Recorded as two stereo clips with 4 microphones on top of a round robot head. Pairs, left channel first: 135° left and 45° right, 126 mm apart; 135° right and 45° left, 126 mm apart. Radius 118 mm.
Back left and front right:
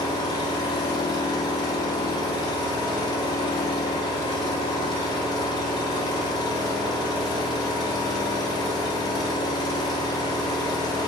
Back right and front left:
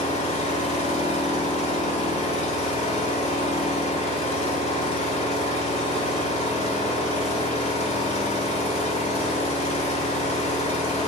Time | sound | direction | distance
0.0 | an engine running | 170° right | 1.4 m